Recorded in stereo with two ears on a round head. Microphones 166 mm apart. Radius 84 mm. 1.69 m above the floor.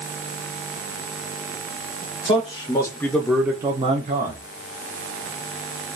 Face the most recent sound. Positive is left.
turn(degrees=-55)  # may be behind; listen again after turning